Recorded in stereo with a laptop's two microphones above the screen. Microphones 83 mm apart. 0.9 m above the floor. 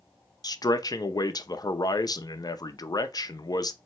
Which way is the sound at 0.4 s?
50° left (ahead or behind).